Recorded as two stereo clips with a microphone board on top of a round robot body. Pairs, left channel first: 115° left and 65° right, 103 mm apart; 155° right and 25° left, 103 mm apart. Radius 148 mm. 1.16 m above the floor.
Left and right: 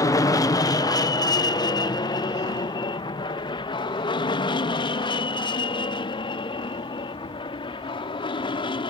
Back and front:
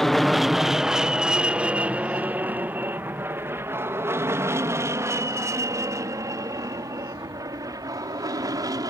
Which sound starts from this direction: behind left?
An aircraft, at 0.0 s.